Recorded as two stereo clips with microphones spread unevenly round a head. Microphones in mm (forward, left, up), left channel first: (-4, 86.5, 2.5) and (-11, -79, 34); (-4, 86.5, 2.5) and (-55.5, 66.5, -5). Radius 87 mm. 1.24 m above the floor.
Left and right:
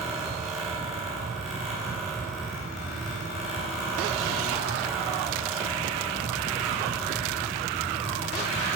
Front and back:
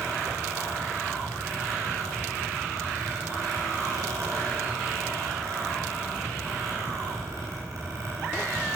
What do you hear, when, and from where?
0.0 s a fan: straight behind, 4 m